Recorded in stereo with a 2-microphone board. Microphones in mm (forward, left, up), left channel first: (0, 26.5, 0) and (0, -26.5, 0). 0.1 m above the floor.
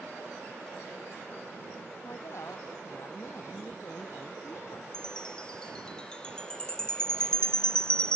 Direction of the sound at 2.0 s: 60° left (ahead or behind).